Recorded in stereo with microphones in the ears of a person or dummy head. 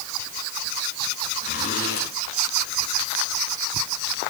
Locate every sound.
1.4 s a zipper: 45° left (ahead or behind), 5.5 m